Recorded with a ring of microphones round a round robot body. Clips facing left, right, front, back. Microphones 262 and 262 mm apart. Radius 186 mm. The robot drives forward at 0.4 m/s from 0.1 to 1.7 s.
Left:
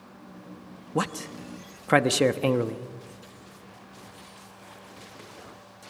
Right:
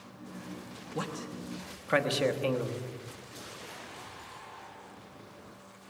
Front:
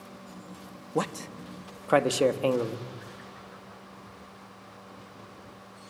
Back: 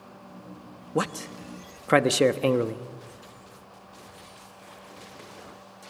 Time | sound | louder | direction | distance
0.9 | a man speaking | left 7 dB, back 2 dB | 100° left | 1.2 m